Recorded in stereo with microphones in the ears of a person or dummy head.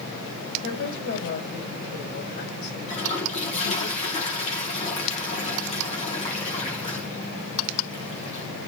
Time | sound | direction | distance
0.6 | a woman speaking | 65° left (ahead or behind) | 5.5 m
2.9 | a toilet flushing | 45° left (ahead or behind) | 2.5 m